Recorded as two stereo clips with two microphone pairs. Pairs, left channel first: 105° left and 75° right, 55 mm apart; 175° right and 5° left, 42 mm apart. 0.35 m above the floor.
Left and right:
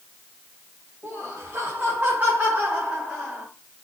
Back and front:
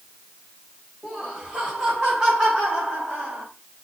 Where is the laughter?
90° right, 2 m; by 3.5 s straight ahead, 1.6 m.